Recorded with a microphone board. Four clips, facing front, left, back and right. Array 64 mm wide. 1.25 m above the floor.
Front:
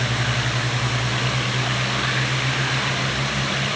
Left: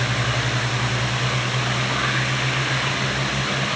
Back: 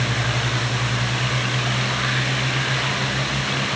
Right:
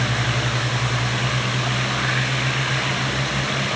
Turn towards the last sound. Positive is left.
No sound to turn to.